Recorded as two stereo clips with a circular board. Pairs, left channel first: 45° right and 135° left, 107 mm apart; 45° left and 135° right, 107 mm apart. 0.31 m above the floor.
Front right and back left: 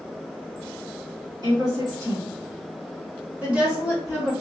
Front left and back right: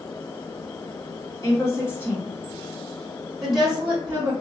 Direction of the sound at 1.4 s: 95° left.